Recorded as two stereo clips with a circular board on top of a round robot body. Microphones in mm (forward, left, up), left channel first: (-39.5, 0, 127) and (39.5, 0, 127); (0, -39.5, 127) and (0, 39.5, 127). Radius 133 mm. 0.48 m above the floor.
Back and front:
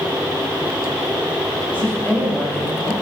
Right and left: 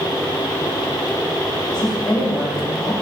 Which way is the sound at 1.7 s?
110° right.